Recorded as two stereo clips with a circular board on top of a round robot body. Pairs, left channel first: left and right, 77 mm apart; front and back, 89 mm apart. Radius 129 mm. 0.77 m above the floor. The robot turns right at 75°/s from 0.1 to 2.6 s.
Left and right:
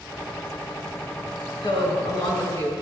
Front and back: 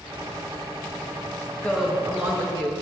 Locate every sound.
1.6 s a woman speaking: 70° left, 4 m; by 2.7 s 140° left, 4 m